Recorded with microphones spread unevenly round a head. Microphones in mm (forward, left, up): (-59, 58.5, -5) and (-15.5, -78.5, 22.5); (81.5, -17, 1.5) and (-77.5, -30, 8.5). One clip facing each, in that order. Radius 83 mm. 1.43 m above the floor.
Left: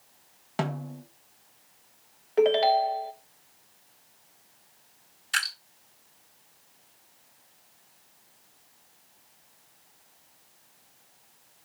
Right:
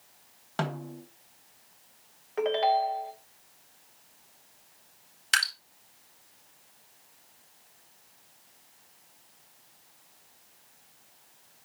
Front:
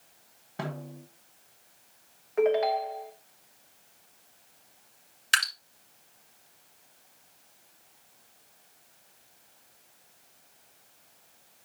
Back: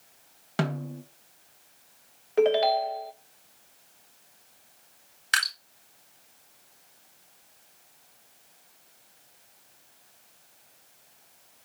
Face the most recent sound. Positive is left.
turn(degrees=-50)